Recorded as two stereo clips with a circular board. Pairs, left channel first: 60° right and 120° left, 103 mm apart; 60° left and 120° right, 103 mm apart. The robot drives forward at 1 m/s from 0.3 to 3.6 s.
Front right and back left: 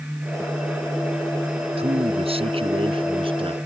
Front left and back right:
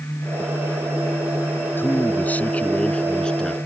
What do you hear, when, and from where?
1.8 s a man speaking: 130° left; by 3.6 s 145° left